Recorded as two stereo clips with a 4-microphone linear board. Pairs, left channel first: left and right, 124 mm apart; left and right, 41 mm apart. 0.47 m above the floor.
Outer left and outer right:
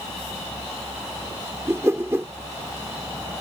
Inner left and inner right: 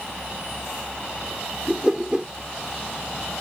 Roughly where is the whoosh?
Centre.